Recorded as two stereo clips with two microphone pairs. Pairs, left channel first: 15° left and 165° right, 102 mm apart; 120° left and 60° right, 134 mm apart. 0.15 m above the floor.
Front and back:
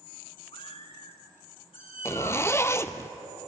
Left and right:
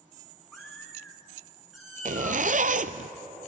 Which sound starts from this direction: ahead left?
A cat meowing, at 0.5 s.